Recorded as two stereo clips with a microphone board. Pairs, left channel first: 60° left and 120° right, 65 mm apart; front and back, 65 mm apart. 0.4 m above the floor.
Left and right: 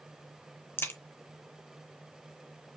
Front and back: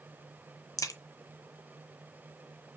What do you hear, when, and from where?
0.8 s a crack: 10° left, 0.8 m